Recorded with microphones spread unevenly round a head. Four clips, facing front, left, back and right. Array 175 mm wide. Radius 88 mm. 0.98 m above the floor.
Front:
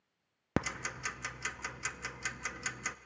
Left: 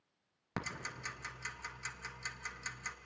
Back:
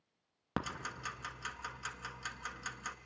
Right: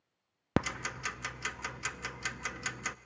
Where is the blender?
No blender in this recording.